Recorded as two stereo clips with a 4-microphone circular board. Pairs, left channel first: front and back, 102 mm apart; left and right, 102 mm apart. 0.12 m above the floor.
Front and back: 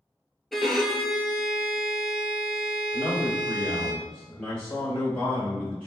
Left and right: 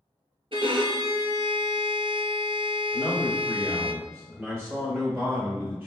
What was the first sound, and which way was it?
A violin, 90° right.